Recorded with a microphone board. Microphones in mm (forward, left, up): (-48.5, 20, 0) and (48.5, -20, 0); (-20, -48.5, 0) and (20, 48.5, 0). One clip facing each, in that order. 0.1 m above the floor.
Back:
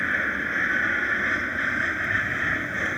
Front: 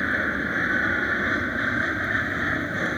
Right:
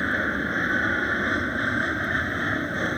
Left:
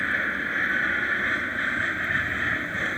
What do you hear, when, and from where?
0.0 s an aircraft: 80° right